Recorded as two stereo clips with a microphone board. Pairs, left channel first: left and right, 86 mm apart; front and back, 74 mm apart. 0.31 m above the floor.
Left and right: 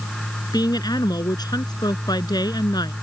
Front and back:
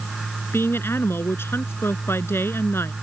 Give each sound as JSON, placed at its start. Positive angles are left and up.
{"t": 0.5, "sound": "a woman speaking", "azimuth_deg": 55}